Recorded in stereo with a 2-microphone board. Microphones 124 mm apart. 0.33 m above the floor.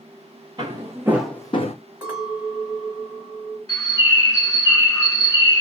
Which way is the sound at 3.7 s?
25° left (ahead or behind).